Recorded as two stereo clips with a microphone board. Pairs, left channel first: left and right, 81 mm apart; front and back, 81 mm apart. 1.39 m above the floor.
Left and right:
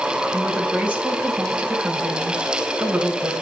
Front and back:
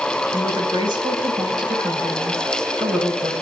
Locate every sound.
0.3 s a woman speaking: 160° right, 1.9 m